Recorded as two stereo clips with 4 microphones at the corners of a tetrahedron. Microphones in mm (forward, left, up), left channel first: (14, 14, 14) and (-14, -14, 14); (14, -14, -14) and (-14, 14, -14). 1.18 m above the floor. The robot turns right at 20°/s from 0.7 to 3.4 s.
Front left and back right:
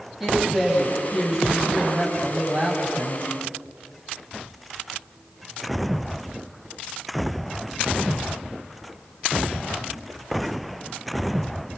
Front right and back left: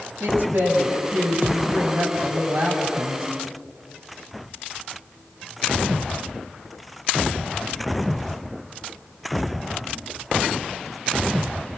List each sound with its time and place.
0.2 s a woman speaking: 135° left, 9 m; by 3.3 s 175° right, 9 m